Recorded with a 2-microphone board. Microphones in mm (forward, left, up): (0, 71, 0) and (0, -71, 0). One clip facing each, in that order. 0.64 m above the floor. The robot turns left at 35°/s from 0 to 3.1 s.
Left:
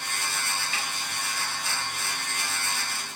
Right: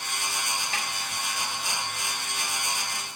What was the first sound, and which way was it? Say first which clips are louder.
A snare drum: right 1 dB; 35° right (ahead or behind).